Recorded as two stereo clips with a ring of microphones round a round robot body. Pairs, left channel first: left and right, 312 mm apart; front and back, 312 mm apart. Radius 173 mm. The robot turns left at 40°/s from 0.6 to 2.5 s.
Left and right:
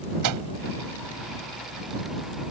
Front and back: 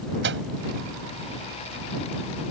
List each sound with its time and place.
0.2 s a microwave: 120° right